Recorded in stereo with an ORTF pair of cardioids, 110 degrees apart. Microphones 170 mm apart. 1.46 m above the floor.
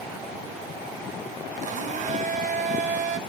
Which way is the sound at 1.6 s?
45° right.